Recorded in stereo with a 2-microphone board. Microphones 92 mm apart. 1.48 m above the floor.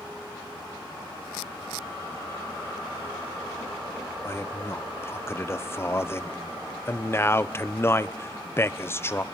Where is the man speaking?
25° left (ahead or behind), 0.9 m.